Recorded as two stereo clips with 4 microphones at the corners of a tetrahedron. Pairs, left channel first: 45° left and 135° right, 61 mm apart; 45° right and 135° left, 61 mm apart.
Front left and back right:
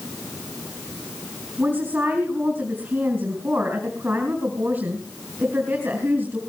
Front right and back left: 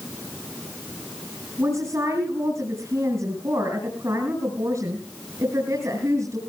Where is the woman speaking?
165° left, 4.5 m.